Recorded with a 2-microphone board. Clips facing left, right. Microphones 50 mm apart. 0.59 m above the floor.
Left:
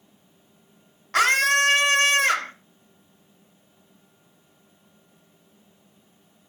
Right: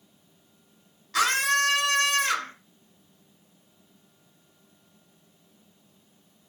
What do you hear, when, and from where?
1.1 s a scream: 45° left (ahead or behind), 2 m